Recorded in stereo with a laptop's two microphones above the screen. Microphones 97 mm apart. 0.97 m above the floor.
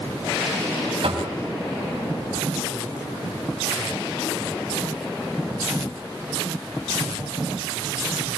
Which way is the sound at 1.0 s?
75° right (ahead or behind).